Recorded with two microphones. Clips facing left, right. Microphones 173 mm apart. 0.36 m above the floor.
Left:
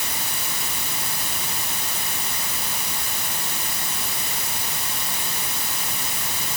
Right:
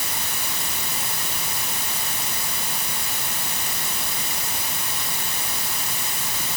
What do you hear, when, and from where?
Only background noise.